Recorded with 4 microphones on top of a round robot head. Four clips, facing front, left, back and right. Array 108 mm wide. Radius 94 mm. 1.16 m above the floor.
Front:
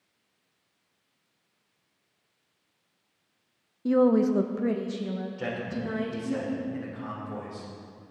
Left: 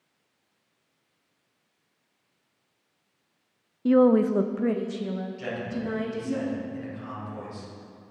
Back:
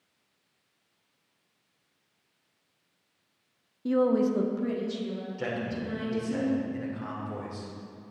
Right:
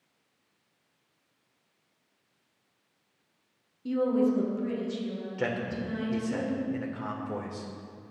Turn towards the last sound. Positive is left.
turn(degrees=-95)